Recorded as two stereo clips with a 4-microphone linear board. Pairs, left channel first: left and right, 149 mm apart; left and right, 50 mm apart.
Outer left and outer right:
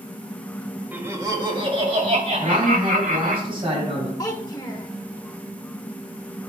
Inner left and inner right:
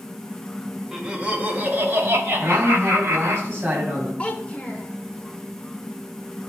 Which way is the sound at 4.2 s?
25° left (ahead or behind).